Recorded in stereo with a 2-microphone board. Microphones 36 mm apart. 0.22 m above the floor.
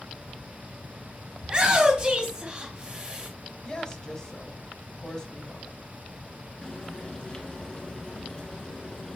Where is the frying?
25° left (ahead or behind), 1.7 m.